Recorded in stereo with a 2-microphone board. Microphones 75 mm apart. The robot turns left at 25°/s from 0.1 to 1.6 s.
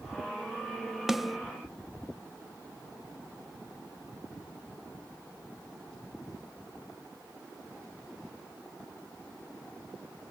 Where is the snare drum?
5° right (ahead or behind), 0.7 m; by 1.4 s centre (ahead or behind), 0.7 m.